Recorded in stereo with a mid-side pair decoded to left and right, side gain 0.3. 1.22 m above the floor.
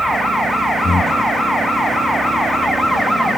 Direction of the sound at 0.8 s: 45° left.